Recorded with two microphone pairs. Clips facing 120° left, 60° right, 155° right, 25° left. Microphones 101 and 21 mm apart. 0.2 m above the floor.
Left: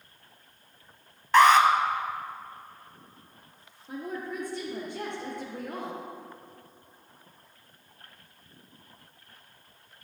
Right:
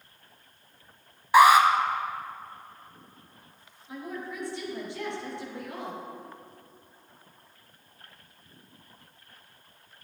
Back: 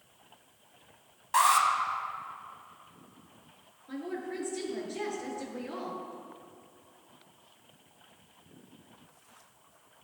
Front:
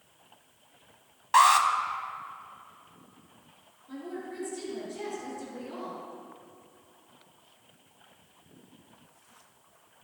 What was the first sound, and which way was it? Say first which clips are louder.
An alarm: right 1 dB, front 4 dB; 5° left.